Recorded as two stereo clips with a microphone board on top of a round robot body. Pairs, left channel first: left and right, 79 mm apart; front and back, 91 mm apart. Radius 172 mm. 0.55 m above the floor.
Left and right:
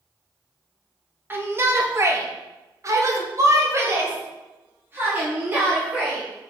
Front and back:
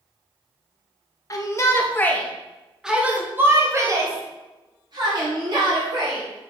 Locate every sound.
1.3 s a shout: 35° right, 1.7 m; by 6.2 s 155° right, 3.5 m